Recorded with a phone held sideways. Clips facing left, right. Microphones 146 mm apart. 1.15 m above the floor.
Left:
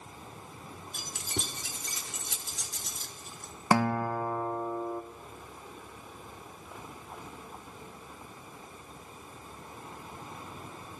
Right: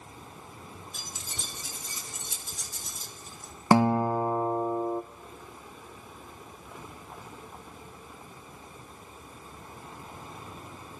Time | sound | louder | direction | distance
0.9 | keys jangling | left 5 dB | 55° left (ahead or behind) | 3 m
3.7 | a guitar | right 5 dB | 20° right (ahead or behind) | 1.1 m